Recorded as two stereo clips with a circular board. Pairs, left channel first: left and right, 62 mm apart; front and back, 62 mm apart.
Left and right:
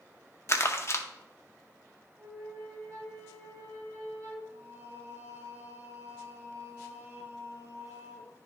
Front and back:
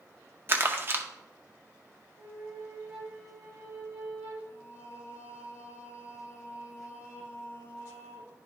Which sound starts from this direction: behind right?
A flute, at 2.2 s.